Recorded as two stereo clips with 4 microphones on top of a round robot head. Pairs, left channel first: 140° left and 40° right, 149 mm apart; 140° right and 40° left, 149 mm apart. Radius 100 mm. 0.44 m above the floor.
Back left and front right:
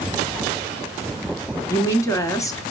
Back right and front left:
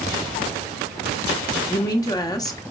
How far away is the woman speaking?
About 1.5 m.